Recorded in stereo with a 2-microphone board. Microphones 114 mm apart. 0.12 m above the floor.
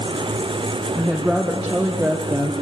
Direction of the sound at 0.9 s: 10° left (ahead or behind).